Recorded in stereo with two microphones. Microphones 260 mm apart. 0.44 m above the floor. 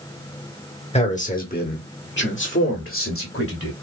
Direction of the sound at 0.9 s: 25° left (ahead or behind).